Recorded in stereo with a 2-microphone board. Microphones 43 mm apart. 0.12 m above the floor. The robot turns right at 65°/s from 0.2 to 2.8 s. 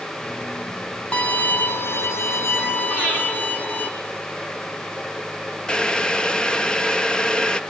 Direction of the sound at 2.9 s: 85° left.